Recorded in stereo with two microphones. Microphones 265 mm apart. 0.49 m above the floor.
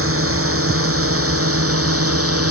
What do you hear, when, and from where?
0.0 s a drone: 55° right (ahead or behind); by 2.5 s 60° right (ahead or behind)